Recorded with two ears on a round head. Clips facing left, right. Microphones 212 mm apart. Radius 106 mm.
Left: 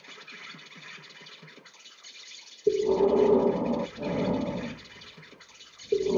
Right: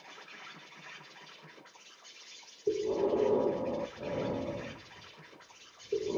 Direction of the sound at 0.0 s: 55° left (ahead or behind).